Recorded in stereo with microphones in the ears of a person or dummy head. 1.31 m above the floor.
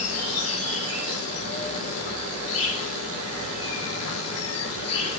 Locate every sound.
0.0 s an insect: 75° left (ahead or behind), 1.4 m